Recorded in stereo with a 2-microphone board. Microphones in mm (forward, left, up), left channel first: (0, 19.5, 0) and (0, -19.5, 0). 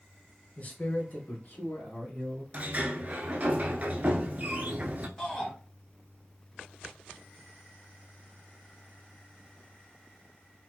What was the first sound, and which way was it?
A man speaking, 40° left (ahead or behind).